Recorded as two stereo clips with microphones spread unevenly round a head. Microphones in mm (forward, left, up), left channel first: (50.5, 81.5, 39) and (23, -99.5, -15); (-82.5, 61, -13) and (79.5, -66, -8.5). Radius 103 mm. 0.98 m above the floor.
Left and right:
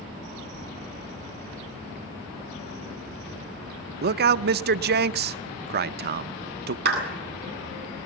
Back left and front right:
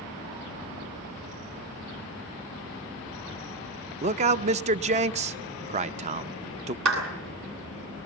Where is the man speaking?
95° right, 0.6 m.